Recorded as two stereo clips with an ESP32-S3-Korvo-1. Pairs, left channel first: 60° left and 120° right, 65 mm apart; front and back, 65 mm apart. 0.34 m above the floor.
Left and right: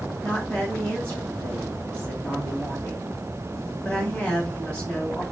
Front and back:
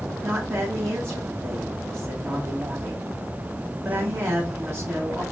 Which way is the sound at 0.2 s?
125° left.